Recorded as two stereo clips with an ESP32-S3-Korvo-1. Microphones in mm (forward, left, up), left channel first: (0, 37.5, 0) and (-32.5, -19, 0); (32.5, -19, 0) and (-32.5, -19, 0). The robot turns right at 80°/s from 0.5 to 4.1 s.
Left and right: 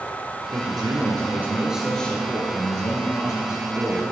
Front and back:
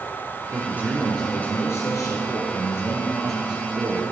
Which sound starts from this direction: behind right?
A man speaking, at 0.5 s.